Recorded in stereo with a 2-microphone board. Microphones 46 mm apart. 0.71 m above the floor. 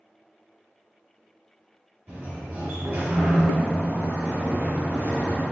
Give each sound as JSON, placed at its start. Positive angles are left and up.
{"t": 2.1, "sound": "a sliding door", "side_deg": -65, "distance_m": 1.7}